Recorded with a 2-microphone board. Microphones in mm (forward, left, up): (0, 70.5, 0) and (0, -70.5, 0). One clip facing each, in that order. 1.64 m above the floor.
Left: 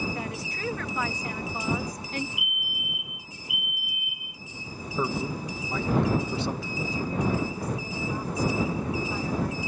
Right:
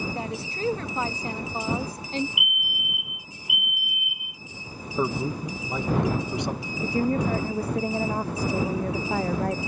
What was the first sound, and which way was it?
A woman speaking, 30° right (ahead or behind).